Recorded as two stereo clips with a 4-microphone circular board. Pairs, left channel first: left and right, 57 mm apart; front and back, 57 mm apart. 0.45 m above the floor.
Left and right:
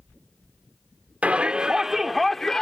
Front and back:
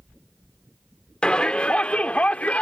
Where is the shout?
55° right; by 2.6 s 30° left.